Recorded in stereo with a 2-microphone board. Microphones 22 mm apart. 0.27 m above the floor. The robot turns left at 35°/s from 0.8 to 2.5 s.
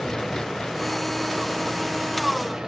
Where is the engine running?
30° left; by 2.7 s 30° right.